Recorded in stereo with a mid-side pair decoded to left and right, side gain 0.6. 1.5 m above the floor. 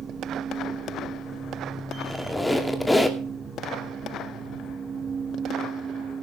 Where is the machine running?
40° right, 2 m.